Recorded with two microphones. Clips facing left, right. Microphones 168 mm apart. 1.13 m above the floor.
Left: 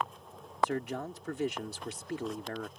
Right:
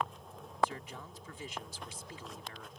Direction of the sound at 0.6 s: 70° left (ahead or behind).